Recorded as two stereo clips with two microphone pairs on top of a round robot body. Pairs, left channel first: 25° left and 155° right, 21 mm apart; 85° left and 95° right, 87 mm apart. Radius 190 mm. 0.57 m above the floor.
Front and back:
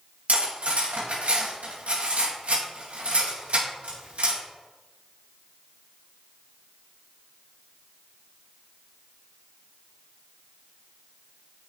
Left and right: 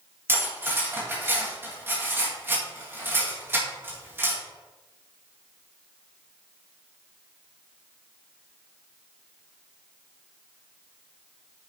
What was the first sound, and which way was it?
Cutlery clinking, 160° right.